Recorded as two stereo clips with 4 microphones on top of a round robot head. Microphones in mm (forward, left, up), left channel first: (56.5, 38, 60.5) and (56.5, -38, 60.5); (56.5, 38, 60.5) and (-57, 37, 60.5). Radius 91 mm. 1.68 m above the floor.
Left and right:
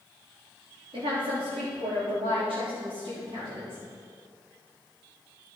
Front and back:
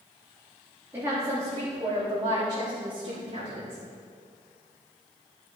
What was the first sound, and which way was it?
A woman speaking, 105° right.